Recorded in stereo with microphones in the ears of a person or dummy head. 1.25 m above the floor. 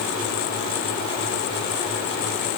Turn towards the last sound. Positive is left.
No sound to turn to.